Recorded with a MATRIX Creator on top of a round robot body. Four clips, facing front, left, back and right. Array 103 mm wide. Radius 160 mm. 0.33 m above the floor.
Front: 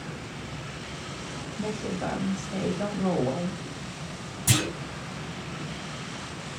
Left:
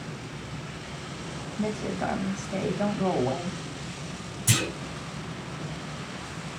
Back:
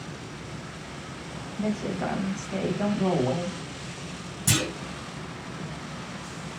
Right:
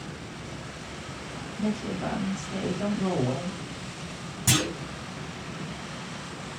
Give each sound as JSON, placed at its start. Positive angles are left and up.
{"t": 1.6, "sound": "a woman speaking", "azimuth_deg": 115, "distance_m": 1.2}
{"t": 4.5, "sound": "a clunk", "azimuth_deg": -105, "distance_m": 2.0}